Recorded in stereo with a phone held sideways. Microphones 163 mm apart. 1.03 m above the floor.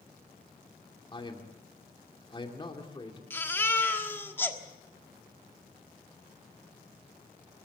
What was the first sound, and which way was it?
A man speaking, 30° left (ahead or behind).